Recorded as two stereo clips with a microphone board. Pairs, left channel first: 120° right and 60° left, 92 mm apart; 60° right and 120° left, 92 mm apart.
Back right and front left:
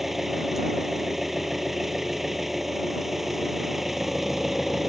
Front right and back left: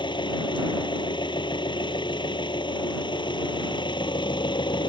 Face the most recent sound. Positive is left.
turn(degrees=-25)